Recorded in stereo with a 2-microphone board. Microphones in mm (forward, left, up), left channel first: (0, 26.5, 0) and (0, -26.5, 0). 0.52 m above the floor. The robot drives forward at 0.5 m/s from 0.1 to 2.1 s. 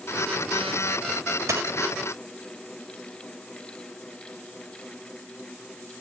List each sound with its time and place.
1.5 s a dropped coin: 75° right (ahead or behind), 0.6 m; by 1.8 s 85° right, 0.6 m